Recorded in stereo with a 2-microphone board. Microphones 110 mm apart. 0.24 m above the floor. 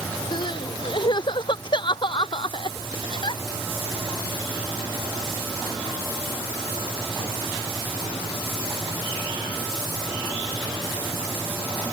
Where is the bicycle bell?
I don't hear a bicycle bell.